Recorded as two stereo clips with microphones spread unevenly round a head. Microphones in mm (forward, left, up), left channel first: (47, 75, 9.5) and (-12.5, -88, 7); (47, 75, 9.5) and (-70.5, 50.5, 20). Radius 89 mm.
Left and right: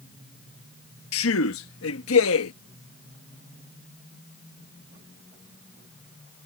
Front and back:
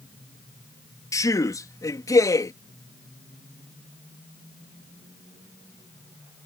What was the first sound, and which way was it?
A man speaking, 75° left.